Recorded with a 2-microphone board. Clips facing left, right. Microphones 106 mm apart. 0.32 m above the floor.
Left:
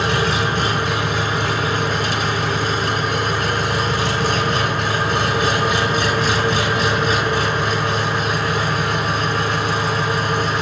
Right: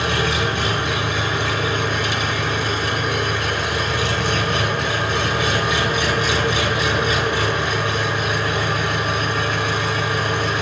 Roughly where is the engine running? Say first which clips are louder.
Left 2 dB; left.